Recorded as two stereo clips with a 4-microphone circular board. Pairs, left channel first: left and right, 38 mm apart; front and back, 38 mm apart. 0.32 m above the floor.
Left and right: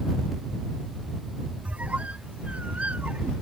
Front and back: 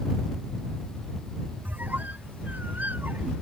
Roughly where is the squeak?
Behind right.